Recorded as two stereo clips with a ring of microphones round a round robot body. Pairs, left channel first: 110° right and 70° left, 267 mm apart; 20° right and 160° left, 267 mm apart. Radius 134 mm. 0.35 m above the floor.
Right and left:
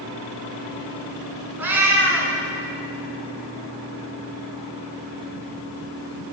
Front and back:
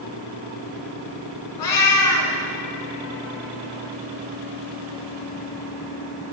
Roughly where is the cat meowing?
Ahead.